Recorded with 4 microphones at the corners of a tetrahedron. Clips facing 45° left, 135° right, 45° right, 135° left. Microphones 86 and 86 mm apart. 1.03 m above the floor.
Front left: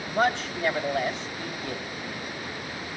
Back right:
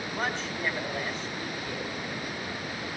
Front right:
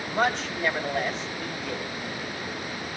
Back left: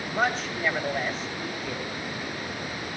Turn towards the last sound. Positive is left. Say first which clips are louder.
# front left 9 dB, front right 1 dB
turn(degrees=45)